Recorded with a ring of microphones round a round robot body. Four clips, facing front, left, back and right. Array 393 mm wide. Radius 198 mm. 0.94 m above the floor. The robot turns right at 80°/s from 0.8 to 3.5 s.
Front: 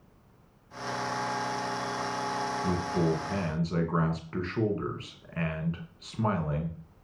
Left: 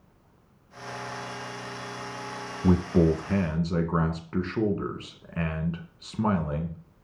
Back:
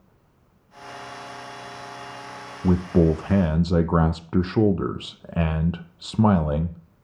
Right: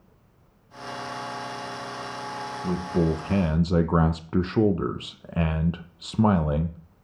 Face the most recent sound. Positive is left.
turn(degrees=-150)